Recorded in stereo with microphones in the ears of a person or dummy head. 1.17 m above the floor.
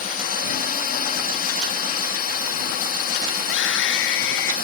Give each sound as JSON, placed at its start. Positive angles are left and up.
{"t": 0.0, "sound": "a drone", "side_deg": 40}
{"t": 3.4, "sound": "a scream", "side_deg": 70}